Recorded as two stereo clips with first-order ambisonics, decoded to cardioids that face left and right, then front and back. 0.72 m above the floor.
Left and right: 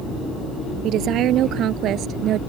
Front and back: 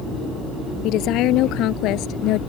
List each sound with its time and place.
0.8 s a woman speaking: 45° right; by 2.4 s 40° right